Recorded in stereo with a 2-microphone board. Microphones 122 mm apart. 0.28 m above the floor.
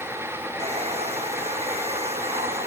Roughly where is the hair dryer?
Right.